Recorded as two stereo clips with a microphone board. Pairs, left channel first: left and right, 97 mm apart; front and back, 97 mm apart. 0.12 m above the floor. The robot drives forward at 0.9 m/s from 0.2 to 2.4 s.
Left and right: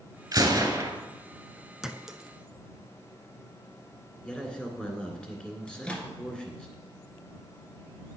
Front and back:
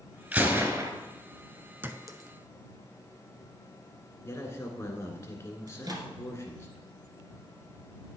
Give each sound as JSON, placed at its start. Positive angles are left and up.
{"t": 0.3, "sound": "a gunshot", "azimuth_deg": -110, "distance_m": 1.5}
{"t": 1.8, "sound": "a clink", "azimuth_deg": -165, "distance_m": 0.7}
{"t": 4.2, "sound": "a man speaking", "azimuth_deg": 20, "distance_m": 1.8}
{"t": 5.7, "sound": "a microwave", "azimuth_deg": 165, "distance_m": 1.6}